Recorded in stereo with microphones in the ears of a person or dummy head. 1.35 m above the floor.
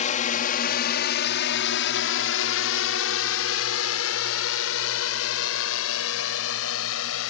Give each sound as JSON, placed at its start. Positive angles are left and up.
{"t": 0.0, "sound": "a drone", "side_deg": 40}